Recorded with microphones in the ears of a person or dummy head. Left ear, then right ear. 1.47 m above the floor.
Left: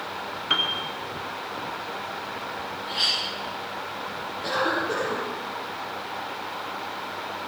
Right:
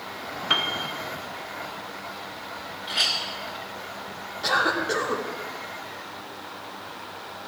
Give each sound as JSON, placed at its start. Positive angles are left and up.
{"t": 0.5, "sound": "a piano", "side_deg": -20, "distance_m": 1.2}
{"t": 2.9, "sound": "a clink", "side_deg": -25, "distance_m": 1.4}
{"t": 4.4, "sound": "a cough", "side_deg": -55, "distance_m": 3.5}